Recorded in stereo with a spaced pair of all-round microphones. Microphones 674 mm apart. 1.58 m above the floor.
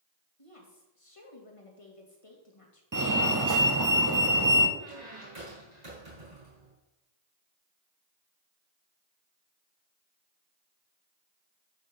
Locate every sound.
0.4 s a woman speaking: 50° left (ahead or behind), 2.5 m
2.9 s a fire alarm: 30° right (ahead or behind), 1.0 m
4.8 s a squeak: 75° right (ahead or behind), 5 m